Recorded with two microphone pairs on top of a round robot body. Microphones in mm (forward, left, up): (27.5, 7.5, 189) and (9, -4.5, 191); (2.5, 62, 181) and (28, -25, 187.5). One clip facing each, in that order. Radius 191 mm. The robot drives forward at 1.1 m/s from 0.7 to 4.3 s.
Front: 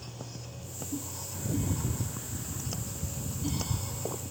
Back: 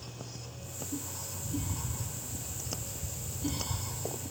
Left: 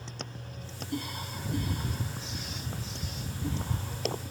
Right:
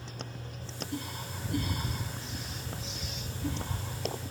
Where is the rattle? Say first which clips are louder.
Front 6 dB, even; 25° left; by 4.2 s 50° left.